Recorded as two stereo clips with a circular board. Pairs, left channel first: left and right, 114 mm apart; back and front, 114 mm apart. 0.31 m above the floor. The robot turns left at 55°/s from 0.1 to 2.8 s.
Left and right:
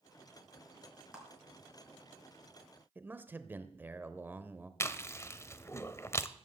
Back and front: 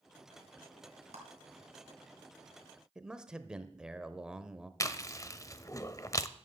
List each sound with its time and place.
1.1 s a clap: 10° right, 4 m; by 1.2 s 15° right, 4 m
3.0 s a man speaking: 70° right, 0.8 m
4.8 s chewing: 140° left, 0.7 m